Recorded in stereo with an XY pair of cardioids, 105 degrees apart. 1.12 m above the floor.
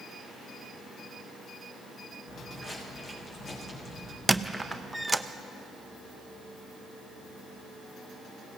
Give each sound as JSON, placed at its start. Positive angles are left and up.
{"t": 2.3, "sound": "footsteps", "azimuth_deg": 45, "distance_m": 4.0}
{"t": 4.3, "sound": "a squeak", "azimuth_deg": -10, "distance_m": 0.5}